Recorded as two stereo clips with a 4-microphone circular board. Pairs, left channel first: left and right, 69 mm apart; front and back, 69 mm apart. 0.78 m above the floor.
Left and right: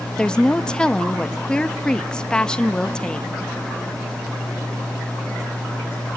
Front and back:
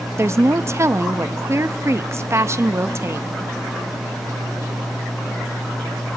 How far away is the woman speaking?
About 0.5 m.